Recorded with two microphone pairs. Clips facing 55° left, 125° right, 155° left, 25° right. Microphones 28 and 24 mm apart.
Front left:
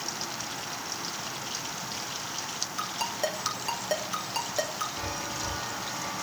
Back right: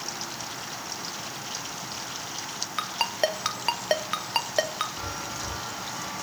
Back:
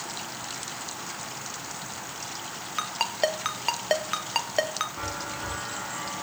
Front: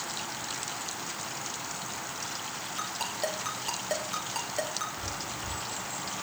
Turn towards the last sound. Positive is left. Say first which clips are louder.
# even, back 3 dB
turn(degrees=145)